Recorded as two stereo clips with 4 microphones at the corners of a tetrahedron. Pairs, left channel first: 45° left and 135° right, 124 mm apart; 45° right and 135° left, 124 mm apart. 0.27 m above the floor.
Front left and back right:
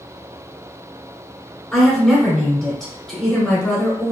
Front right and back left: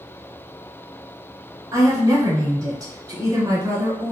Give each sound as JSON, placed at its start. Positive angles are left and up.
{"t": 1.7, "sound": "a woman speaking", "azimuth_deg": 125, "distance_m": 1.4}